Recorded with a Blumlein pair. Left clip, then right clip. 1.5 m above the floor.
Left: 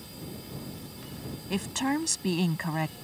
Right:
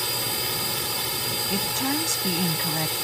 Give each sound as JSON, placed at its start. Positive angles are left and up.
{"t": 0.0, "sound": "a drone", "azimuth_deg": -40}
{"t": 1.5, "sound": "a woman speaking", "azimuth_deg": 0}